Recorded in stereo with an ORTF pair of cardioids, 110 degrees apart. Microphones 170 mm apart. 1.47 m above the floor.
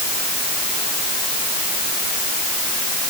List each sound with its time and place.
Only background noise.